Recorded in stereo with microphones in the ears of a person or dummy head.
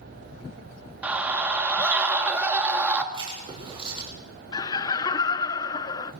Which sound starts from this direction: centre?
A scream, at 1.0 s.